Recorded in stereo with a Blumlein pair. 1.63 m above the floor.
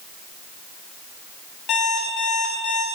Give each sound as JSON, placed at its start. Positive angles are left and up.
{"t": 1.7, "sound": "an alarm clock", "azimuth_deg": 30, "distance_m": 5.5}